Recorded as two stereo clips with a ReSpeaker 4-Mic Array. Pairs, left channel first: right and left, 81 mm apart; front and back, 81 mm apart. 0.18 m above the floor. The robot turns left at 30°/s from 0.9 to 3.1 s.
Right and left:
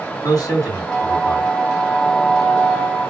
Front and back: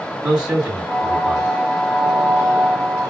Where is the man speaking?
100° right, 2.0 m; by 1.6 s 120° right, 2.0 m.